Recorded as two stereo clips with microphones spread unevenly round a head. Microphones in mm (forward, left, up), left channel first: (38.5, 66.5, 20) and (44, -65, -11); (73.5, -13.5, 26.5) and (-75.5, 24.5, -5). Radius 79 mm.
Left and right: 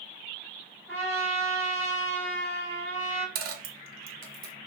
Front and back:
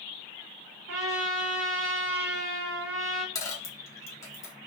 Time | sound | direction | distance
0.9 | a trumpet | 170° left | 1.1 m
3.4 | a dropped coin | 75° right | 0.6 m